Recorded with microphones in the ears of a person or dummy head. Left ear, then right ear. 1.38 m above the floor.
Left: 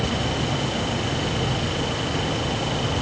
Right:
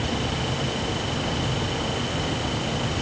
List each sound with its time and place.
Only background noise.